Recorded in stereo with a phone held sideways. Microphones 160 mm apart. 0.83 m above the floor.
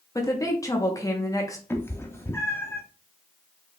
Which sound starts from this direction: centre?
A cat meowing, at 1.7 s.